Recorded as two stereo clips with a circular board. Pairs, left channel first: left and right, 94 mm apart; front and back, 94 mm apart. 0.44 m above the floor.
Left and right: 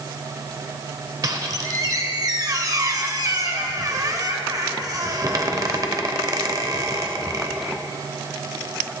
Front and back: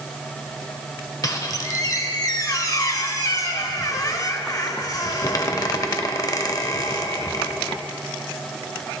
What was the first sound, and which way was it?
A squeak, 45° right.